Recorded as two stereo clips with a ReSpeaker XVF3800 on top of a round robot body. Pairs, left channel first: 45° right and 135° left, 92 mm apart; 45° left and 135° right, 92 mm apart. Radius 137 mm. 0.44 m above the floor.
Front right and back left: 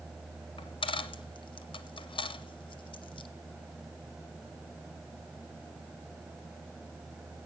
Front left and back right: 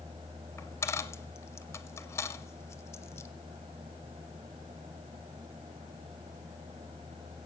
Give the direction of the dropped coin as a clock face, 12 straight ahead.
1 o'clock.